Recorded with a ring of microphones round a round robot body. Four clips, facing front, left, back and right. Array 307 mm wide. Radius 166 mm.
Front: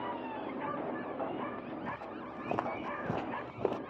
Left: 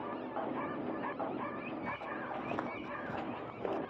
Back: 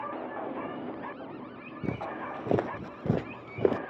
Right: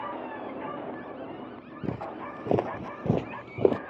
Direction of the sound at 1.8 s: 130° right.